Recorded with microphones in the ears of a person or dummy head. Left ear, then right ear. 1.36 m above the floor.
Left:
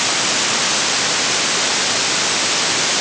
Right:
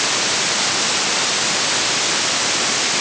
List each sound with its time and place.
Only background noise.